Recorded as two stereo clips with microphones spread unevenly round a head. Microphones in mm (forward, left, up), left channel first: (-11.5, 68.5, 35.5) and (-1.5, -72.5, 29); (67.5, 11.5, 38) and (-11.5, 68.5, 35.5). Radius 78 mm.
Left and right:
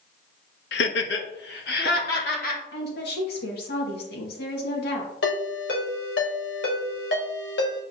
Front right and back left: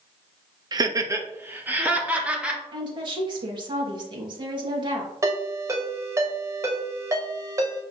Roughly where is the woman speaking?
Left.